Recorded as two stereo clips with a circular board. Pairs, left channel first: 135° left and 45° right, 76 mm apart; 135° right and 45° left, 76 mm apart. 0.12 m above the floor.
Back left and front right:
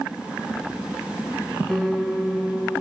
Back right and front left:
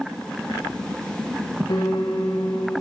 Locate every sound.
1.7 s a piano: 135° right, 5 m